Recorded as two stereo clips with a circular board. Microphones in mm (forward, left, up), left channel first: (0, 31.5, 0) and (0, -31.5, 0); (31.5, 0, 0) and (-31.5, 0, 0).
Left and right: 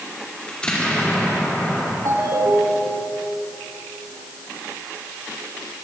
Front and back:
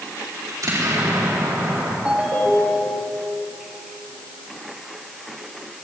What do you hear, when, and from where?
0.5 s an explosion: 160° left, 5 m
2.0 s a ringtone: 110° right, 4.5 m